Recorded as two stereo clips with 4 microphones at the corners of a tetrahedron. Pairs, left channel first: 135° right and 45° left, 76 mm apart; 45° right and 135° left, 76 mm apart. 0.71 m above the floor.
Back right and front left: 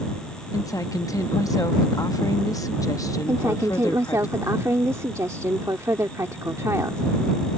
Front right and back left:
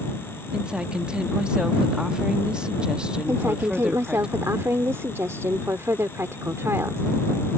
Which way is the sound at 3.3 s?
85° left.